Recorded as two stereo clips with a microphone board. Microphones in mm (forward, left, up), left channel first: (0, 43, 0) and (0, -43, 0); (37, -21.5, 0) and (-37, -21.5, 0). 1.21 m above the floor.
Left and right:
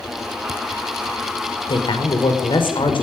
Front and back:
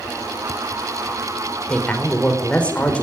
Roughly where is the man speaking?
Left.